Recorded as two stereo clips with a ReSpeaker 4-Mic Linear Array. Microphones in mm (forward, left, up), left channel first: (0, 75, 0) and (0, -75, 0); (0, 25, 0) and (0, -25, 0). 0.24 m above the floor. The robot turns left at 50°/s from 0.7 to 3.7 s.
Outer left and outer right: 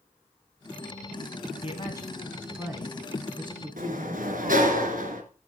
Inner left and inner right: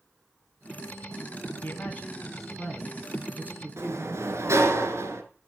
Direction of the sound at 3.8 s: 65° right (ahead or behind).